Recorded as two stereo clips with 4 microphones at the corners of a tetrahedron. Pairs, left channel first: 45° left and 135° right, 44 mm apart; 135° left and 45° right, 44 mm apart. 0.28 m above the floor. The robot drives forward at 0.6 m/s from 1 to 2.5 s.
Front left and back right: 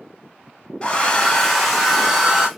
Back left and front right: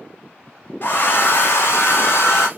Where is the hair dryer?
110° left, 0.9 m; by 2.5 s 145° left, 1.4 m.